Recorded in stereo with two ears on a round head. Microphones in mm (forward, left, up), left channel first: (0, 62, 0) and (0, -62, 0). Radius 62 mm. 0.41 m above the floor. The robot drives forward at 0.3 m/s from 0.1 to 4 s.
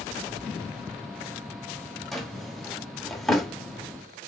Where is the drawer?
Centre (ahead or behind), 1.0 m.